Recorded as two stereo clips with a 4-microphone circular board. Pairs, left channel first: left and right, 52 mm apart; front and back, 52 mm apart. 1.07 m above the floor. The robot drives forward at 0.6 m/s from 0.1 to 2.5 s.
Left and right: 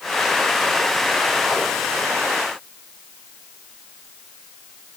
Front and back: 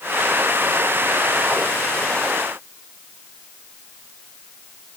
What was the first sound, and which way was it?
Only background noise.